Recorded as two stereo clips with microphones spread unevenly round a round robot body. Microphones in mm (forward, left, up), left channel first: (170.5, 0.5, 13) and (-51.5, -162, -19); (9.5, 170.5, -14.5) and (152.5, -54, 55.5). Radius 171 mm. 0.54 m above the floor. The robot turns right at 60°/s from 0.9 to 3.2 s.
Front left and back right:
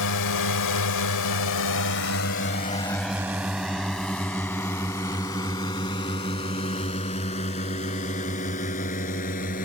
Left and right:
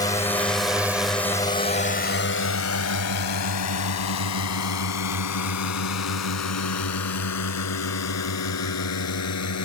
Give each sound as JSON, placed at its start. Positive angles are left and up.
{"t": 0.0, "sound": "a drone", "azimuth_deg": 55}